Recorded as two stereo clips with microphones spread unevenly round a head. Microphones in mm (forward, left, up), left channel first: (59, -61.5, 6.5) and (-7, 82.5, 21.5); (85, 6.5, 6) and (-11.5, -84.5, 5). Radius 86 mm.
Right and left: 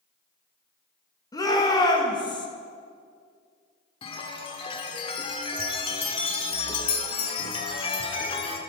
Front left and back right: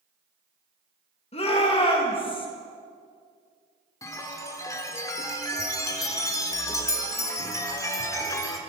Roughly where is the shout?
Ahead.